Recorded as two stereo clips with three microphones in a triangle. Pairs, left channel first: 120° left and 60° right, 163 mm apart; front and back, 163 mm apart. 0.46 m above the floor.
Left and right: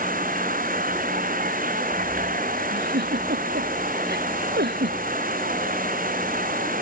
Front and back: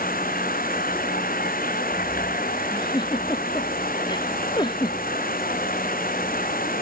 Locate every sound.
0.0 s an insect: 30° right
2.7 s a giggle: 65° right